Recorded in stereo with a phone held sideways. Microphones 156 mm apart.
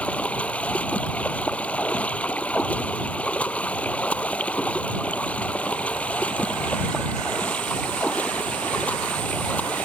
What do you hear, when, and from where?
0.0 s running water: 10° left (ahead or behind)